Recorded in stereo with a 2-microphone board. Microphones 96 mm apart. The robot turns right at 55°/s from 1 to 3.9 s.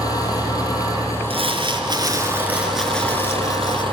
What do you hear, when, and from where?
0.0 s an engine running: 140° left, 5.5 m; by 3.9 s 60° right, 5.5 m
1.3 s crumpling: 85° right, 3 m; by 3.8 s 55° left, 3 m